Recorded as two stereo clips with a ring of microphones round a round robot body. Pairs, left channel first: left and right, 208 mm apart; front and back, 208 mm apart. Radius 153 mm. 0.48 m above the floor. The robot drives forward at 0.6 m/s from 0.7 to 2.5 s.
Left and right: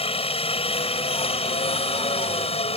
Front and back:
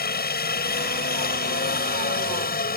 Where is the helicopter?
30° left; by 2.8 s 35° left.